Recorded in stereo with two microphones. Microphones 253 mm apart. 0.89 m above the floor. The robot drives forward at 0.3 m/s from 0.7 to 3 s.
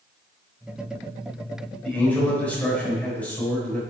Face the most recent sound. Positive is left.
turn(degrees=5)  # may be behind; listen again after turning